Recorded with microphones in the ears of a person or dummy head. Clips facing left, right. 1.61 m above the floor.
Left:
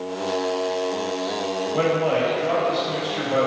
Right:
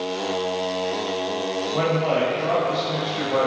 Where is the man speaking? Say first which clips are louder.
Left 1 dB; 30° left (ahead or behind), 1.1 m.